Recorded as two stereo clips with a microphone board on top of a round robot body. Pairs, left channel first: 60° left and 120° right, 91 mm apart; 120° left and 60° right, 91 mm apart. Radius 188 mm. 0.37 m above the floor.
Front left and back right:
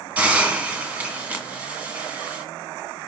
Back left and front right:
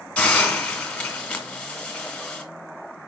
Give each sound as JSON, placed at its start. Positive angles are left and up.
{"t": 0.2, "sound": "a hiss", "azimuth_deg": -175, "distance_m": 1.5}